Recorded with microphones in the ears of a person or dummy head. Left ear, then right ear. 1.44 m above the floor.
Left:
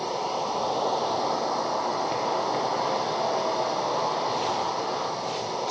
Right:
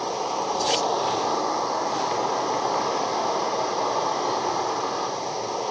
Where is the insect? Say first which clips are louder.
Right 2 dB; 70° right (ahead or behind), 3.5 m.